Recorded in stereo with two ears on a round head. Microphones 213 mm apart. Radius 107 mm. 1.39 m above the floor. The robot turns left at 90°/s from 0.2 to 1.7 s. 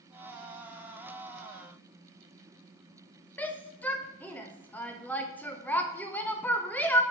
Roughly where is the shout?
Centre.